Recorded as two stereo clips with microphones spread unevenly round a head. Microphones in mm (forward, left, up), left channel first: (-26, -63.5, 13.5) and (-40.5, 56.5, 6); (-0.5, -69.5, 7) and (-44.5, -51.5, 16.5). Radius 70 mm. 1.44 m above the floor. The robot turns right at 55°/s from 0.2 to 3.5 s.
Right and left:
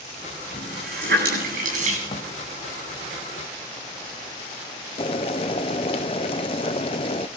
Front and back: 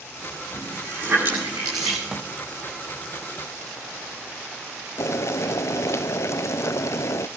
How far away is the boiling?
About 0.7 m.